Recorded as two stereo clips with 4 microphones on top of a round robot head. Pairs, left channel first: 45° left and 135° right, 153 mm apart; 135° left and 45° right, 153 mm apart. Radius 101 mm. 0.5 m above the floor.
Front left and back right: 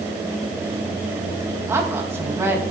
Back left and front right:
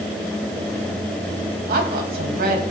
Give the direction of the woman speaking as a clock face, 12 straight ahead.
2 o'clock.